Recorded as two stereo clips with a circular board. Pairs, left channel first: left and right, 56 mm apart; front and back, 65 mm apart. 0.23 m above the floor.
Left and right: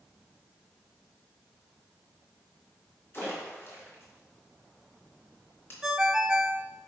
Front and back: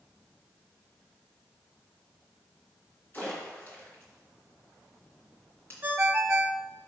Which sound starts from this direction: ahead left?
A splash, at 3.1 s.